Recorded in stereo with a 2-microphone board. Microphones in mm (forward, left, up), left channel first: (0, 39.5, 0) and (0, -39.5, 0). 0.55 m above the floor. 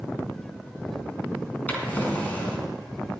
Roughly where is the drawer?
Centre.